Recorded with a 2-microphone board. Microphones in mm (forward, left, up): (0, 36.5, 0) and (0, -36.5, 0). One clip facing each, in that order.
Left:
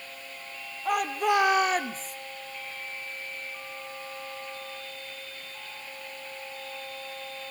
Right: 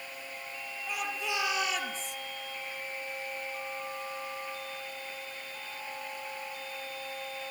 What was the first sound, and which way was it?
A shout, 60° left (ahead or behind).